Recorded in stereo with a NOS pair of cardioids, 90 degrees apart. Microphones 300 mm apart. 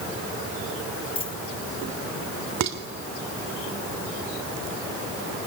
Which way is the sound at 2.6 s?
60° right.